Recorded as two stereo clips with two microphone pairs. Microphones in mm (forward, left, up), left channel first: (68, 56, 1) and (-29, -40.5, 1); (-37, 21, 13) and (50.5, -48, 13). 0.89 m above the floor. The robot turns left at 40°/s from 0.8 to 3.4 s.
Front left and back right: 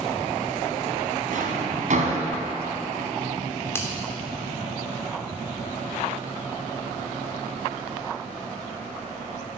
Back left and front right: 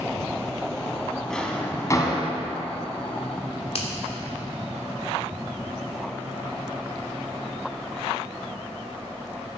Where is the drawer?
130° right, 2.0 m; by 2.3 s 170° right, 2.0 m.